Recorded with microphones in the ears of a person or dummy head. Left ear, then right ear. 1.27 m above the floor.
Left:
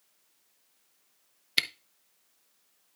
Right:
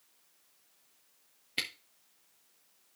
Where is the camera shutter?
40° left (ahead or behind), 0.7 m.